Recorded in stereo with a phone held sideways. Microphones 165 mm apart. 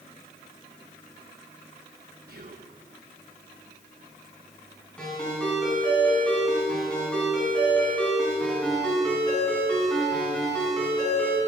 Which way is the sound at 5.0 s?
5° left (ahead or behind).